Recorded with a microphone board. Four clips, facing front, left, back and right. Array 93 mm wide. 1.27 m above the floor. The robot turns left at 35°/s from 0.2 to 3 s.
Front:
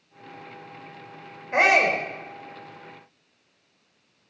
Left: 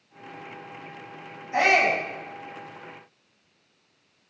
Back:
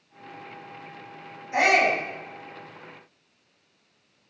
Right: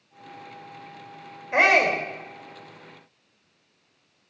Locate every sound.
1.5 s a shout: 50° right, 4.5 m; by 2.0 s 65° right, 4.5 m